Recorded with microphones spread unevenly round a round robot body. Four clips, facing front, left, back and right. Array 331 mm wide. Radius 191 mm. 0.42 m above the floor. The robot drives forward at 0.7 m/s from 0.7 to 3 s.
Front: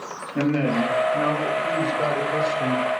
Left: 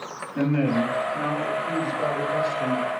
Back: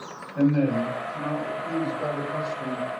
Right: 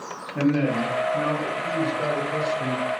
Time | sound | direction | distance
0.3 | a man speaking | straight ahead | 2 m